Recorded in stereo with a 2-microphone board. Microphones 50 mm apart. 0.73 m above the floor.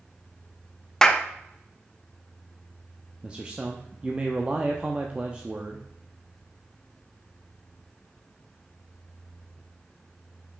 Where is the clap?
10° left (ahead or behind), 0.6 m.